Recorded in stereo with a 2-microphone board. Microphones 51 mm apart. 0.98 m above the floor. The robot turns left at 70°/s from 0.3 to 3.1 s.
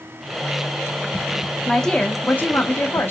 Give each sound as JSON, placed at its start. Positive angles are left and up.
{"t": 1.7, "sound": "a woman speaking", "azimuth_deg": 180, "distance_m": 0.8}